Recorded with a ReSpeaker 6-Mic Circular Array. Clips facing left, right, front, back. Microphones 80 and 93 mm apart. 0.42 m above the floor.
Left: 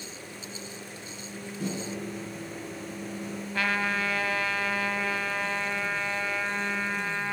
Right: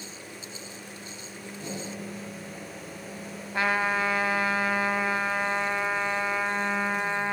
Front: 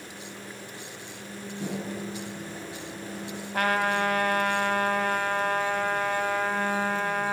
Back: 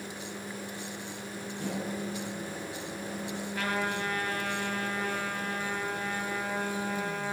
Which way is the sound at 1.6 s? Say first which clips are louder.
Left 3 dB, front 1 dB; 70° left.